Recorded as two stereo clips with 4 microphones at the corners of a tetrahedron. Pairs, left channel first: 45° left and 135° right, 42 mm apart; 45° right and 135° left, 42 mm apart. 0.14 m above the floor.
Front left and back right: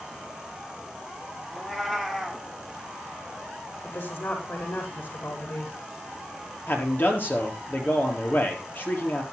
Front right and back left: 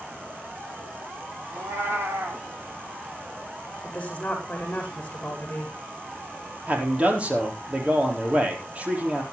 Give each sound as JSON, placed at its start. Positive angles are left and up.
{"t": 1.5, "sound": "a cat meowing", "azimuth_deg": 130, "distance_m": 1.9}
{"t": 3.8, "sound": "a woman speaking", "azimuth_deg": 15, "distance_m": 6.5}
{"t": 6.7, "sound": "a man speaking", "azimuth_deg": 80, "distance_m": 4.0}